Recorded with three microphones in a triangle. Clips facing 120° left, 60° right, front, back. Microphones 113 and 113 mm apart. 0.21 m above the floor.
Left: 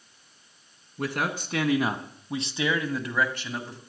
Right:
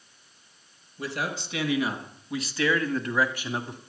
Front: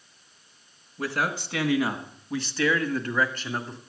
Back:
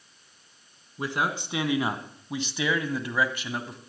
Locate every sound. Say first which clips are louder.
1.0 s a man speaking: left 3 dB, even; 110° left, 2.5 m; by 3.8 s 100° right, 1.6 m